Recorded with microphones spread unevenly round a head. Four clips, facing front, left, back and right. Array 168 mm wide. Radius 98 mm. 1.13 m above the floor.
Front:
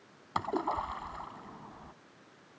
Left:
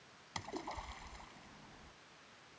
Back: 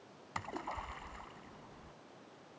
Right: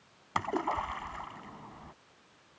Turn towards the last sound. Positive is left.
turn(degrees=-40)